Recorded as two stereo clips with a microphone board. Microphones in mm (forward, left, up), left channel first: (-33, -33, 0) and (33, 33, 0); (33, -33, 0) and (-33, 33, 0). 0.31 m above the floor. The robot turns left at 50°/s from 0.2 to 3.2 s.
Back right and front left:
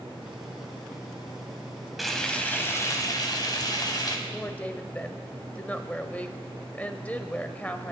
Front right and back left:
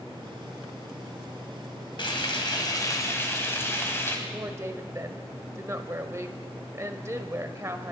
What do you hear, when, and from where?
2.0 s frying: 45° right, 2 m; by 4.2 s 105° right, 2 m
4.3 s a woman speaking: 165° left, 1.0 m